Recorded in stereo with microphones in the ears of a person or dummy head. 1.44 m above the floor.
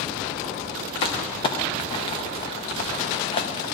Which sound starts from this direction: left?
Crumpling, at 1.0 s.